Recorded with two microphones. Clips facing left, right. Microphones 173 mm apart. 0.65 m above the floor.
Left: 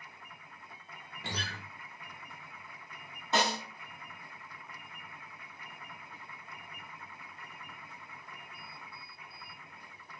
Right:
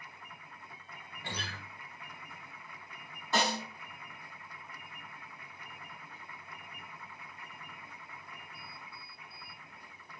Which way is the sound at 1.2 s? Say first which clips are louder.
Left 1 dB; 85° left.